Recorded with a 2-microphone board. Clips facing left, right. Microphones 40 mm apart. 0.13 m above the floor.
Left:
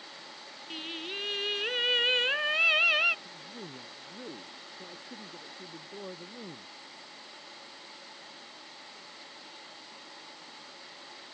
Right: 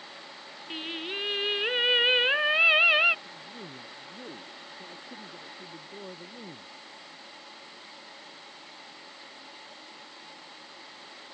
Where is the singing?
20° right (ahead or behind).